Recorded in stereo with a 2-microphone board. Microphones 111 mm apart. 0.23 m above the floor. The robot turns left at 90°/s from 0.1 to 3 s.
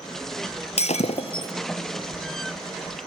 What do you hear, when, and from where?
0.8 s breaking glass: 100° left, 1.1 m; by 1.5 s 35° left, 1.1 m